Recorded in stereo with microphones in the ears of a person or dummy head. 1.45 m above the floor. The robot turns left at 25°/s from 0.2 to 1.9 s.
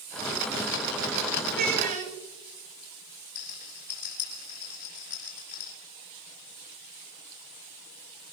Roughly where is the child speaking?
Right.